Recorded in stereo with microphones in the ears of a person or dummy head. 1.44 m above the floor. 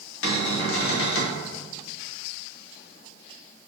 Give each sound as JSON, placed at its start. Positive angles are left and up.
{"t": 0.2, "sound": "a cupboard door", "side_deg": 75, "distance_m": 0.9}